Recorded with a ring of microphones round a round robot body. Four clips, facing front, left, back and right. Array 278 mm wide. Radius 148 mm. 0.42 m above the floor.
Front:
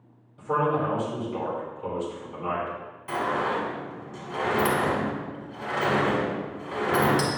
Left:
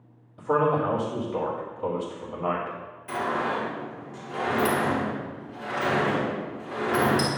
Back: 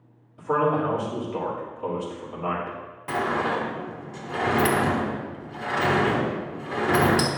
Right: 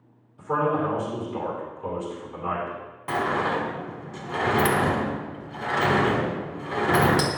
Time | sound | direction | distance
0.4 | a man speaking | 110° left | 2.5 m
3.1 | a sliding door | 115° right | 1.4 m